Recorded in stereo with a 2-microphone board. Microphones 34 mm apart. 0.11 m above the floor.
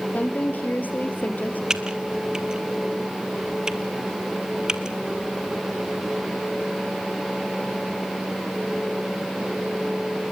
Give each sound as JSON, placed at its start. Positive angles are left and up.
{"t": 0.1, "sound": "a woman speaking", "side_deg": 55, "distance_m": 3.0}
{"t": 1.7, "sound": "typing on a keyboard", "side_deg": -20, "distance_m": 1.3}